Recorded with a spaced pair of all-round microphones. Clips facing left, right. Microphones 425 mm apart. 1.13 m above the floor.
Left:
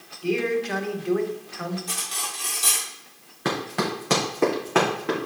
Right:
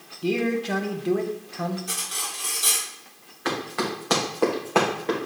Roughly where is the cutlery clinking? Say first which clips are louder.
Even; centre.